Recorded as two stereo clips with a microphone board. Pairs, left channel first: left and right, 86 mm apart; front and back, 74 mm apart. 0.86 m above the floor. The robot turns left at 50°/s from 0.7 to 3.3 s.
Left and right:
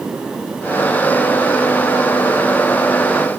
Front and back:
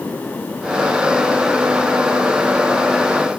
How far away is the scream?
No scream in this recording.